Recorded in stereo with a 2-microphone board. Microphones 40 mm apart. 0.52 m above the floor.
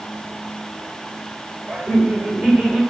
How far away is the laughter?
About 2 m.